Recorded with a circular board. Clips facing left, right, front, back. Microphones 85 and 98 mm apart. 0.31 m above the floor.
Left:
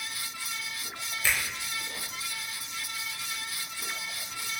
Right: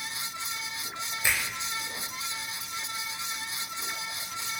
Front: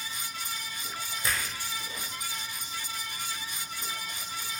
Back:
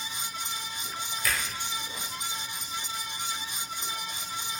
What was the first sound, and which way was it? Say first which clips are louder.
A finger snap: even, even; 30° right.